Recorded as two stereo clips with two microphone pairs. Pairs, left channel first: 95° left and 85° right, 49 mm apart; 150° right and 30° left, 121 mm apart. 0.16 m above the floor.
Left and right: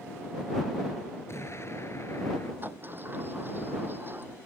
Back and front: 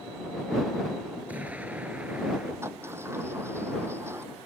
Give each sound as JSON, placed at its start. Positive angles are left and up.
{"t": 1.3, "sound": "an explosion", "azimuth_deg": 105}
{"t": 2.6, "sound": "a sliding door", "azimuth_deg": -40}